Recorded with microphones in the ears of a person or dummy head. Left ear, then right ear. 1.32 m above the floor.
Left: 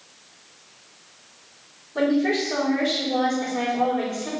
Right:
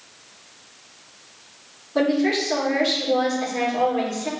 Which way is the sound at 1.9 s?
35° right (ahead or behind).